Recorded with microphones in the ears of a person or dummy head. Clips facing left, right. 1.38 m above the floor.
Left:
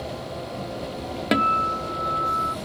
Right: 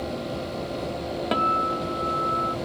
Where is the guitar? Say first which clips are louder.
Left 4 dB; 25° left (ahead or behind).